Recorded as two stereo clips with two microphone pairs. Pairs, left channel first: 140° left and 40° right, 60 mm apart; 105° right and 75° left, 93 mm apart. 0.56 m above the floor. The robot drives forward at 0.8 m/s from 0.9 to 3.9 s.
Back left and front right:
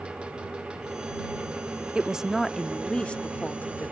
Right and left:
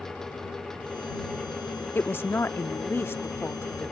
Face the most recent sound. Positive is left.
turn(degrees=-165)